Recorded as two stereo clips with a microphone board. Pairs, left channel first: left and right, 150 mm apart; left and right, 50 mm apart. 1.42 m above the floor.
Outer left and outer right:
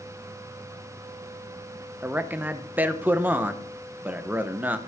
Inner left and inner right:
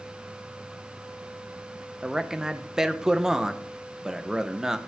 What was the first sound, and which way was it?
A man speaking, 10° right (ahead or behind).